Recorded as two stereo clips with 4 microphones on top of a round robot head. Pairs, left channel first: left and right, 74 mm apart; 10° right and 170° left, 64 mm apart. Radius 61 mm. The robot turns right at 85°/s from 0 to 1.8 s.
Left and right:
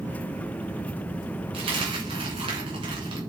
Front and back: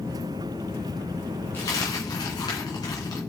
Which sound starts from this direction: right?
A dropped coin, at 1.5 s.